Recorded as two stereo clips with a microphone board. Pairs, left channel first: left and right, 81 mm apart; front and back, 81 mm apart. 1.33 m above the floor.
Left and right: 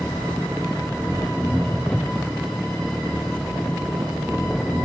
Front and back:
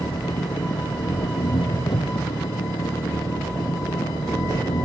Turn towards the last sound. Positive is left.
turn(degrees=10)